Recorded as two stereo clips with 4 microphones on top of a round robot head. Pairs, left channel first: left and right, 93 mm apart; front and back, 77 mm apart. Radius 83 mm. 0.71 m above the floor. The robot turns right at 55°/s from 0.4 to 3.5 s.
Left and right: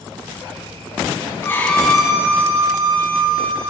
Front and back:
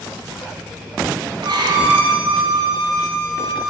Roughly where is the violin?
Behind left.